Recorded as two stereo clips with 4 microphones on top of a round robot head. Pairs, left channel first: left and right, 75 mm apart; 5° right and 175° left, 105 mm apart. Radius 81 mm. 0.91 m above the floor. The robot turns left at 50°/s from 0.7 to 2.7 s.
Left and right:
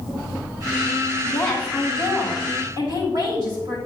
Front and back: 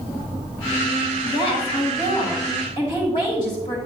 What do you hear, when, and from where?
1.2 s a woman speaking: 20° left, 3.5 m; by 3.8 s 55° right, 3.5 m